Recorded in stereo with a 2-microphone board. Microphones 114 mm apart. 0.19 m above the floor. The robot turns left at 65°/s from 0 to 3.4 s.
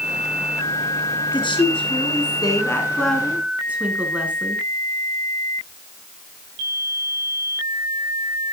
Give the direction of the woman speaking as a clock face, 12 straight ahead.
8 o'clock.